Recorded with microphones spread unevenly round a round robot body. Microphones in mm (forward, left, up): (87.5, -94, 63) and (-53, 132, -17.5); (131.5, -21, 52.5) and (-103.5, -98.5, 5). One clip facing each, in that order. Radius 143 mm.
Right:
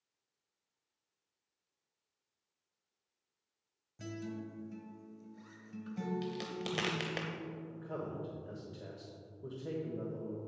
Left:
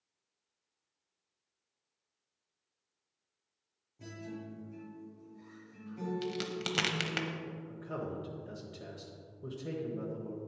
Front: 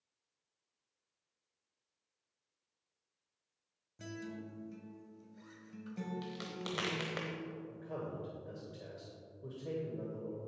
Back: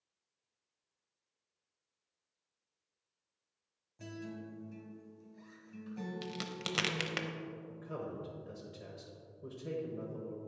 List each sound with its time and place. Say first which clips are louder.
4.0 s a guitar: right 2 dB, even; 55° right, 1.6 m
6.2 s a crack: left 3 dB, back 1 dB; 170° left, 0.8 m
7.7 s a man speaking: left 4 dB, even; 150° left, 1.2 m